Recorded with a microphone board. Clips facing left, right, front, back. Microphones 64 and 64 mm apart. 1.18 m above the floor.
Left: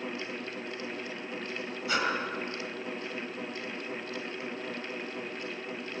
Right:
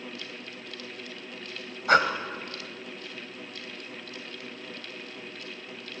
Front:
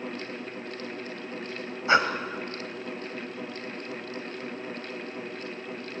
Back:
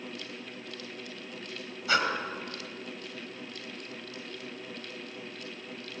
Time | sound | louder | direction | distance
1.9 | breathing | right 9 dB, front 5 dB | 60° right | 2 m